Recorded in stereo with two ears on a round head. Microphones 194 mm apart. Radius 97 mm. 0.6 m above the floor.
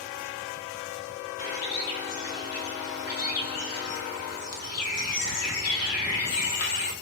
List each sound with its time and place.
1.4 s a bird: 75° left (ahead or behind), 0.7 m